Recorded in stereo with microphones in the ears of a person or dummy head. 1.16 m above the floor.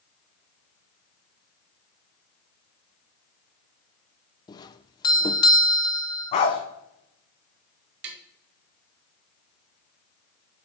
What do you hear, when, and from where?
4.5 s a doorbell: 20° left (ahead or behind), 0.6 m
6.3 s a dog barking: 45° left (ahead or behind), 2 m
8.0 s tapping: 55° right (ahead or behind), 1.3 m